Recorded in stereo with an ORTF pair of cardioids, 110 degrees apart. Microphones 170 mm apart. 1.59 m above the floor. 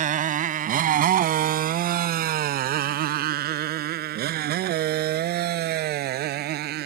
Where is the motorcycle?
55° right; by 6.9 s 70° right.